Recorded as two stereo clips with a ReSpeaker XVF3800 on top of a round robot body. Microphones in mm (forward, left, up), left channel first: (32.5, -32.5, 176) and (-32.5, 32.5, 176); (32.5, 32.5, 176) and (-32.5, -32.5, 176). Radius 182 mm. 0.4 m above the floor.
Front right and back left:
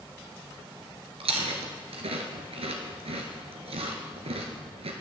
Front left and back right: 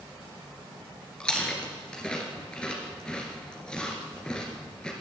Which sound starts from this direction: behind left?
Chewing, at 1.2 s.